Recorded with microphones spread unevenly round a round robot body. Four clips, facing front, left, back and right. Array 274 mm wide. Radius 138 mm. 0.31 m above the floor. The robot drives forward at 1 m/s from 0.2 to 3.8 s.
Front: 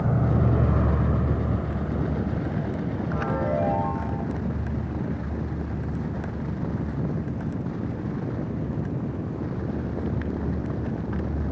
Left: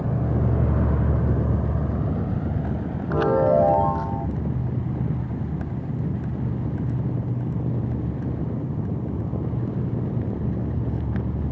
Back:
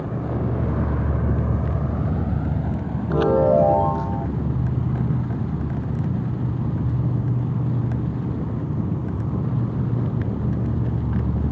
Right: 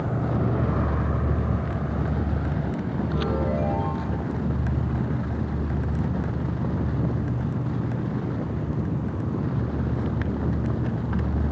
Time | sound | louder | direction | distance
0.0 | an insect | even, front 2 dB | 15° left | ?
3.1 | a chime | left 10 dB, back 11 dB | 155° left | ?